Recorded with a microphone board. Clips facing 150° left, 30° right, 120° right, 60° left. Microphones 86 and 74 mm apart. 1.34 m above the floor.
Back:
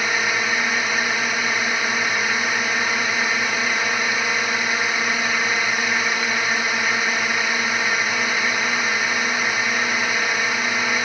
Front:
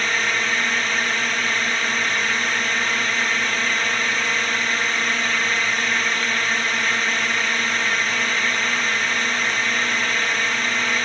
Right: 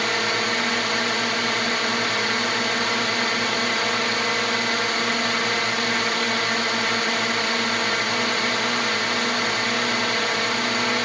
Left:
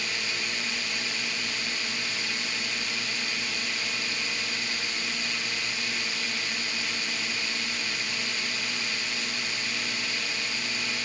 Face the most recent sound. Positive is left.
turn(degrees=-130)